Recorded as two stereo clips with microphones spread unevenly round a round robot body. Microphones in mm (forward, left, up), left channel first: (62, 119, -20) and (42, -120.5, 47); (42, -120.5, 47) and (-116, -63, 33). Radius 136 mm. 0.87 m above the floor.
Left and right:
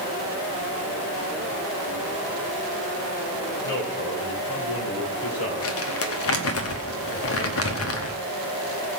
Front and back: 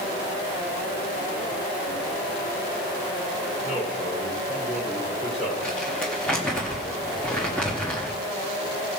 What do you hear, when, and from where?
3.6 s a man speaking: 45° left, 3 m; by 5.7 s 75° left, 3 m
5.6 s crumpling: 65° left, 1.0 m